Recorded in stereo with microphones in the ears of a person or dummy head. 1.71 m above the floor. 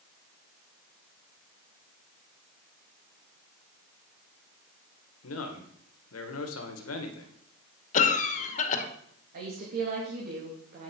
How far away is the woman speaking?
About 2 m.